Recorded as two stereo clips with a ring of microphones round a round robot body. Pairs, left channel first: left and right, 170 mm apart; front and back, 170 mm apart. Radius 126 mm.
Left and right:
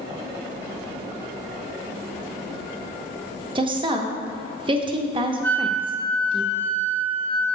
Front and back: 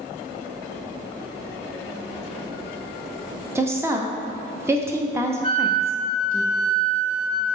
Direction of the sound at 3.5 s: 115° right.